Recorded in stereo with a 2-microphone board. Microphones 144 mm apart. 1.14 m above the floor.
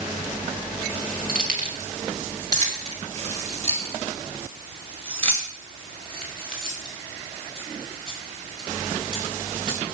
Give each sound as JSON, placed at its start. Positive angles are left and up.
{"t": 1.3, "sound": "keys jangling", "side_deg": -75, "distance_m": 2.0}